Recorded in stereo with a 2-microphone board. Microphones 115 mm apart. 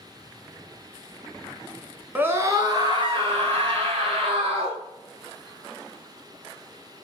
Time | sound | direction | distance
2.1 | a scream | 15° right (ahead or behind) | 1.1 m